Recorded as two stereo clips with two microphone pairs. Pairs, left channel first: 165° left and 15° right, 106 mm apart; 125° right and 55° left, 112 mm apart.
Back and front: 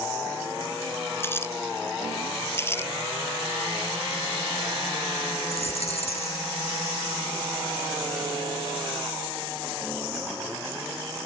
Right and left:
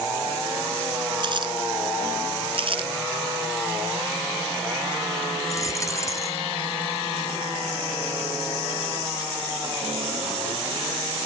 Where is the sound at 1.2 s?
95° left.